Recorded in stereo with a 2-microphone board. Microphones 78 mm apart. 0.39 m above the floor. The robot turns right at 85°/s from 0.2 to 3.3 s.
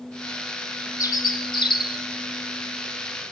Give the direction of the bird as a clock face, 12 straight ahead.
10 o'clock.